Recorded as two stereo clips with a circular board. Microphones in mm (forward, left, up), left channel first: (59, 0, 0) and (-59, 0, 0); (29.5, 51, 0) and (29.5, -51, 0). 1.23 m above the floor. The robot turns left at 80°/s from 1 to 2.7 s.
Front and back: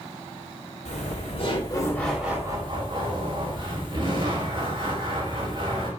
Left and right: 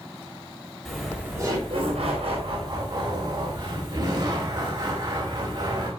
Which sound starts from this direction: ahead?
Laughter, at 0.8 s.